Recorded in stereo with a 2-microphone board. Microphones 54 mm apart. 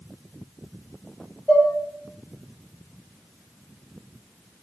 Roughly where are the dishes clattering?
Centre.